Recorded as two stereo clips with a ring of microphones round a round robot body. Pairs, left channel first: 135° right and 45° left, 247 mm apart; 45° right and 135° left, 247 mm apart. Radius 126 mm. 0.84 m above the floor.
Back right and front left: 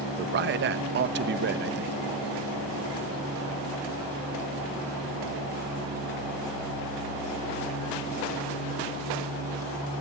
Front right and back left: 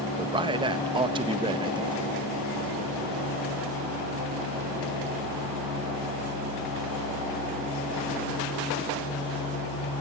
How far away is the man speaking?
About 0.6 m.